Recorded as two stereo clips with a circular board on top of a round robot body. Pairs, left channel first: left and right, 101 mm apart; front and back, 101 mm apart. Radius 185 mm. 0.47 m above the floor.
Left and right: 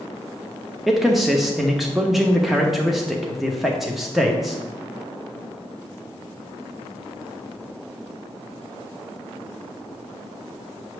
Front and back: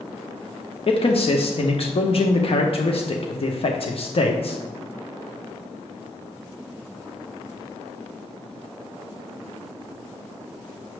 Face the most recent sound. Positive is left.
turn(degrees=-5)